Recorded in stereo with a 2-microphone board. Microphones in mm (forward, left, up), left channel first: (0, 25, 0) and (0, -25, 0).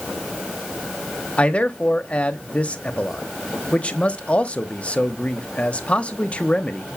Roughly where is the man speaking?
Left.